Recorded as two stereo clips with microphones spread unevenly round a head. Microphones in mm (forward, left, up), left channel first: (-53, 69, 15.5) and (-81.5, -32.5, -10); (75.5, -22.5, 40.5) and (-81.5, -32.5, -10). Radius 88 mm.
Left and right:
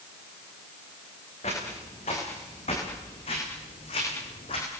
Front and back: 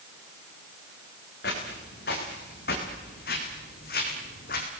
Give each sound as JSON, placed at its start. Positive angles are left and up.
{"t": 1.4, "sound": "footsteps", "azimuth_deg": 30, "distance_m": 7.0}